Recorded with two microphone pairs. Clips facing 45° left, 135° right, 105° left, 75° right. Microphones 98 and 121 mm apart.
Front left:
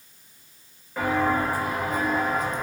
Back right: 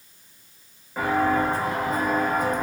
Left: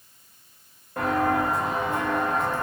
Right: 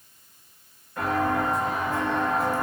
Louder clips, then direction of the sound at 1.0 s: Back right 2 dB, left 2 dB; 145° left.